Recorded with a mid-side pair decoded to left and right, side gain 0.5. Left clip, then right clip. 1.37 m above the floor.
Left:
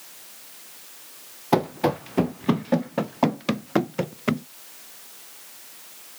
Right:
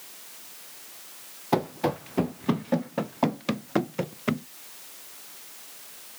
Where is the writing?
No writing in this recording.